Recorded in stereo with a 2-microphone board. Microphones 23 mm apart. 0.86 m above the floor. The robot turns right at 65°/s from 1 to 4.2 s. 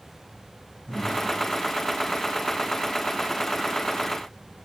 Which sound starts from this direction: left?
Breathing, at 0.9 s.